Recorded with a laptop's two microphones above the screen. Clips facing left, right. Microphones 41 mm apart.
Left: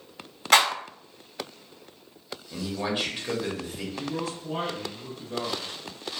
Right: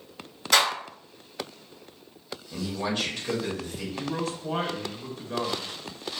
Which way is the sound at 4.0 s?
60° right (ahead or behind).